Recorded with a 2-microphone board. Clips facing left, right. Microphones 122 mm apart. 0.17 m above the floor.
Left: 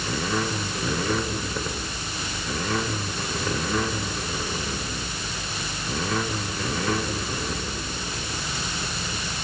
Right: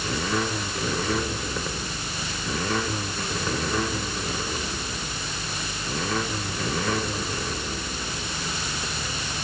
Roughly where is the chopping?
No chopping in this recording.